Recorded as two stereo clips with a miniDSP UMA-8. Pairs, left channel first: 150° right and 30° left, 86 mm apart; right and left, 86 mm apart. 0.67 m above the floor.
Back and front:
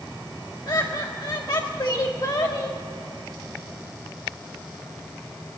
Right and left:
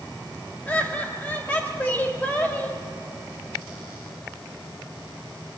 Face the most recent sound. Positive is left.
turn(degrees=-155)